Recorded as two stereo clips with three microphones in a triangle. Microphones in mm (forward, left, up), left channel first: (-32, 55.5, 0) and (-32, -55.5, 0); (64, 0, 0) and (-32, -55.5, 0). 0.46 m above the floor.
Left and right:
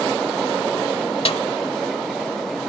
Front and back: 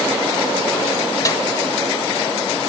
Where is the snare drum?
85° left.